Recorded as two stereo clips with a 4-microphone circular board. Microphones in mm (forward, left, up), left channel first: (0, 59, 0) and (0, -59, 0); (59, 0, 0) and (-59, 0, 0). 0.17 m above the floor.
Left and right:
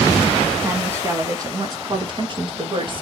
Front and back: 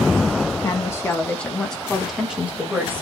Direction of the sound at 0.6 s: 35° right.